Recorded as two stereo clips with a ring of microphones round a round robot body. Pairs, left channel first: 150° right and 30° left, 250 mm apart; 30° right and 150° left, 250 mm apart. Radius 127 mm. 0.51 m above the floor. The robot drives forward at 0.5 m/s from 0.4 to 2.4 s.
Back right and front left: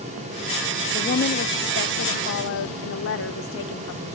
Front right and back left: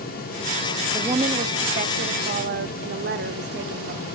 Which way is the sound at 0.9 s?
150° right.